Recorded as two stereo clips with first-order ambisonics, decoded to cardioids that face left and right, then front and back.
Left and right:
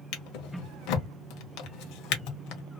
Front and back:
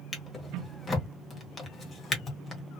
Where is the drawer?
70° left, 1.1 m.